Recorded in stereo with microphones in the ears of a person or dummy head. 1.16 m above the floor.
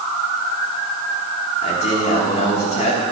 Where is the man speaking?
35° left (ahead or behind), 3.5 m.